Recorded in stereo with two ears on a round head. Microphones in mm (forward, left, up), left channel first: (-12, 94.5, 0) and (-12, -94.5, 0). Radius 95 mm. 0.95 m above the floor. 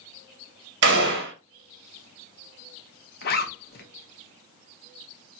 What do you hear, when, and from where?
0.8 s a gunshot: 50° right (ahead or behind), 1.2 m
3.2 s a zipper: 45° left (ahead or behind), 0.8 m